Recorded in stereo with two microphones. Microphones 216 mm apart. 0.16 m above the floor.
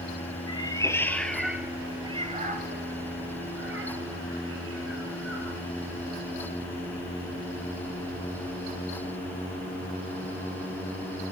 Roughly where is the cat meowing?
Centre.